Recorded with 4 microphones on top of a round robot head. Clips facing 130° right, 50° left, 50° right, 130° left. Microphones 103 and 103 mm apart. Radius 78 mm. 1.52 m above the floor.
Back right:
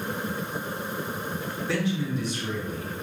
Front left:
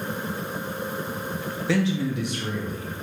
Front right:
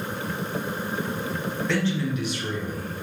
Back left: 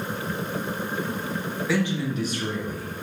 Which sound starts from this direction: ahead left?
A man speaking, at 1.7 s.